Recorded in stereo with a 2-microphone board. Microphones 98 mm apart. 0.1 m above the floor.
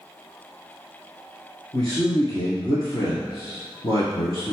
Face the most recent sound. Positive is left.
turn(degrees=35)  # may be behind; listen again after turning